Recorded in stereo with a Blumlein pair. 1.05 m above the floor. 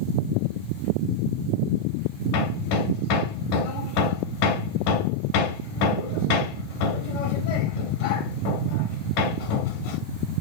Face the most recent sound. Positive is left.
turn(degrees=45)